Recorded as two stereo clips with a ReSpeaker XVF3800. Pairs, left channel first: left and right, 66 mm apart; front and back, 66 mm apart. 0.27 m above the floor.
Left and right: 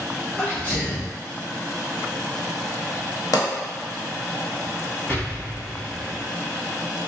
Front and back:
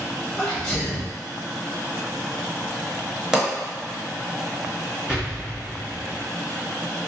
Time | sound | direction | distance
0.4 | a sneeze | 60° left | 1.0 m
3.3 | a pop | 100° left | 0.8 m
5.1 | an explosion | 110° left | 1.6 m